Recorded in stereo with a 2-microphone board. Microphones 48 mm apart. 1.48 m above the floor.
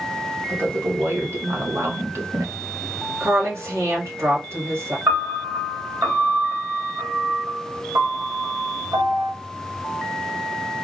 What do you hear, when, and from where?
0.5 s a woman speaking: 45° right (ahead or behind), 1.8 m; by 2.5 s 70° right (ahead or behind), 1.0 m
3.2 s a woman speaking: 60° right (ahead or behind), 1.6 m
5.1 s a piano: 80° right, 1.6 m